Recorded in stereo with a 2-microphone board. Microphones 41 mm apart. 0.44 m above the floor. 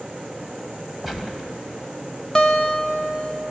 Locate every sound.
1.0 s a gunshot: 5° right (ahead or behind), 2 m
2.4 s a guitar: 10° left (ahead or behind), 1.1 m